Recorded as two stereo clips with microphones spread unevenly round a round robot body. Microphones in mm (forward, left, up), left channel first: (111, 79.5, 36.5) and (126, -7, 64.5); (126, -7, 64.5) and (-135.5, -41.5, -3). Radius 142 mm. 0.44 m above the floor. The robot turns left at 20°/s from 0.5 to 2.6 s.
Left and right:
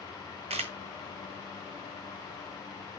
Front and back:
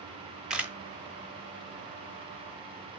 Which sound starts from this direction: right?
A camera shutter, at 0.5 s.